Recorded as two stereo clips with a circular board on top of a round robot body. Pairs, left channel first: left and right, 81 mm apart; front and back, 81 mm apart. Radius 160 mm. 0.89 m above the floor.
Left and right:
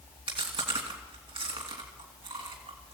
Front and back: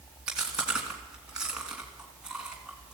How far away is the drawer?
I don't hear a drawer.